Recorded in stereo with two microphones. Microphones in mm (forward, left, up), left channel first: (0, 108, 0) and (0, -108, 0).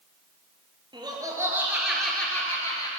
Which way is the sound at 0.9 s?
20° right (ahead or behind).